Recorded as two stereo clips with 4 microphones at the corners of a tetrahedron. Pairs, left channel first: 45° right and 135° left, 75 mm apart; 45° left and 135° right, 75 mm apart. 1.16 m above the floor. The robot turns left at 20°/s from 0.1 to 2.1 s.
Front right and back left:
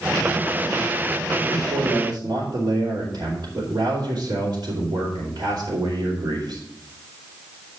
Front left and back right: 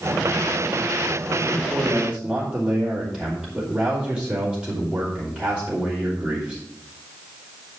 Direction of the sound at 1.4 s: 150° left.